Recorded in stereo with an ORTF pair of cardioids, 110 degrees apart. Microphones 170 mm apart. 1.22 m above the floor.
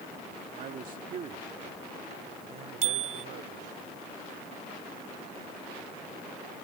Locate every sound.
0.6 s a man speaking: 50° right; by 3.8 s 65° right
2.8 s a bicycle bell: 45° right